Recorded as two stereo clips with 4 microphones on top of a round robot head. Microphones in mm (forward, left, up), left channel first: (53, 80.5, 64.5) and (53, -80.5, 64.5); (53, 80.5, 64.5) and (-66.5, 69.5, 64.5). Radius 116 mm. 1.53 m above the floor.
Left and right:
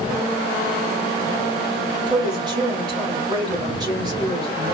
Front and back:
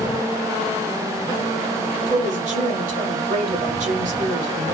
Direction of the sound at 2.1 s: 160° right.